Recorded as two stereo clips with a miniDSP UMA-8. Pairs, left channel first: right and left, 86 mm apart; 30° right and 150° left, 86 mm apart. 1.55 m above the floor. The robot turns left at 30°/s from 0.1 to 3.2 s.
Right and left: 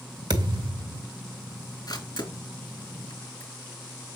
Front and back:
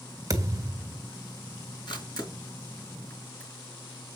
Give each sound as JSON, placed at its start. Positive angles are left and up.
{"t": 0.3, "sound": "a thud", "azimuth_deg": 110, "distance_m": 2.0}
{"t": 1.9, "sound": "a camera shutter", "azimuth_deg": -50, "distance_m": 3.5}